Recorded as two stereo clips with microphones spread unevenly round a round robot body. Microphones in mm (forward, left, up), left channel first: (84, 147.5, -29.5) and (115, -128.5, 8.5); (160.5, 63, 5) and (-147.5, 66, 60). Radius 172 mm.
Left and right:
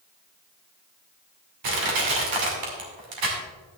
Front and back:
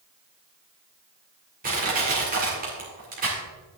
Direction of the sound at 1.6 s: 110° right.